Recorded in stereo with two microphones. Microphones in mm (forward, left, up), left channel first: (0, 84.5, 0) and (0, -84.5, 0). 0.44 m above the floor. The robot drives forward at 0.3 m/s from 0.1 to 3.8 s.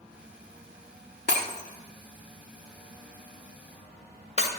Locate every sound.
1.3 s breaking glass: 75° left (ahead or behind), 0.7 m; by 4.5 s 45° left (ahead or behind), 1.0 m